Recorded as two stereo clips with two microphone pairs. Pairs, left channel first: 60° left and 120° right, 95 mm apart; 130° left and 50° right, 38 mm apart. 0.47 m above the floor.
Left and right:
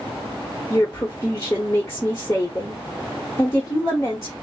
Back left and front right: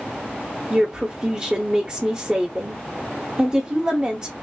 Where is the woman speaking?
5° left, 1.1 m.